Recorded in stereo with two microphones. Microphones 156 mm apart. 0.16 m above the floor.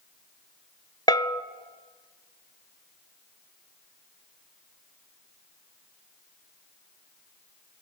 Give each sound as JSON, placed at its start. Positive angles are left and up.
{"t": 1.1, "sound": "a bell", "side_deg": 30, "distance_m": 0.5}